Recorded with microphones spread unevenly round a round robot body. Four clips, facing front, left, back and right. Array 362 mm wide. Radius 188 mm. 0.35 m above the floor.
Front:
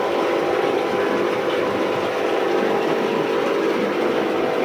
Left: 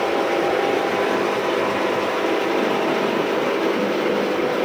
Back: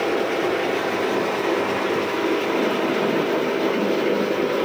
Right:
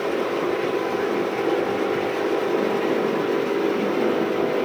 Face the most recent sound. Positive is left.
No sound to turn to.